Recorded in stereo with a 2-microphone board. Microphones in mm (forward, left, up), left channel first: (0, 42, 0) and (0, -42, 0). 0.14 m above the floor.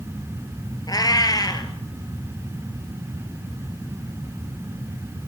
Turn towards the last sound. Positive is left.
turn(degrees=45)  # may be behind; listen again after turning